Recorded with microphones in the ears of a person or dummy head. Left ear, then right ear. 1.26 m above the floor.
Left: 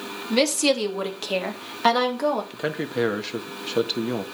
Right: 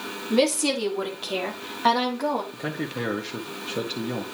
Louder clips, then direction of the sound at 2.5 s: Left 4 dB; 60° left (ahead or behind).